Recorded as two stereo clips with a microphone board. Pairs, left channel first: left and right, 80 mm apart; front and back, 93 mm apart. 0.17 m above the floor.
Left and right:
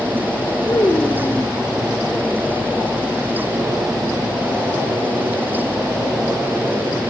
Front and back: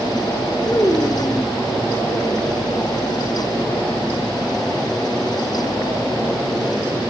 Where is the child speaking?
55° left, 1.5 m.